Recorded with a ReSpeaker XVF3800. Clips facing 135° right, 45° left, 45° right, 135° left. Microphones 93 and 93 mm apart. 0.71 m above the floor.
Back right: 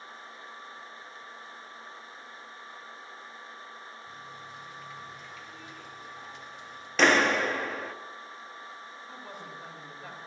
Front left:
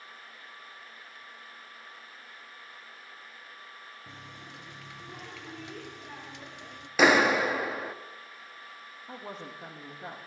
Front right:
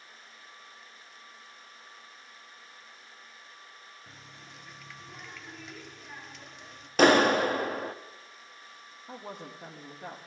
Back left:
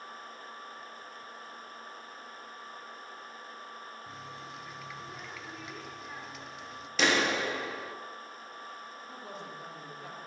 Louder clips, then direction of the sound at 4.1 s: Back right 3 dB, back left 7 dB; 45° left.